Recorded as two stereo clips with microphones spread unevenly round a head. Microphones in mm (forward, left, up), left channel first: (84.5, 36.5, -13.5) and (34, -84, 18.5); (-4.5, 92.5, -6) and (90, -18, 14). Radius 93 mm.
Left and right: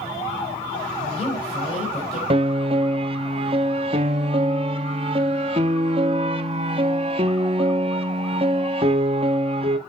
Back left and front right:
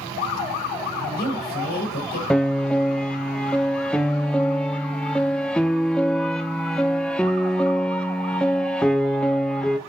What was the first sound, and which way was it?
A woman speaking, 125° left.